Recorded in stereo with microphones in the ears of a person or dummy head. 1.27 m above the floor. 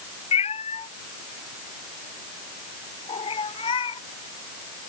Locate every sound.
0.3 s a cat meowing: 25° left (ahead or behind); by 4.0 s 20° left (ahead or behind)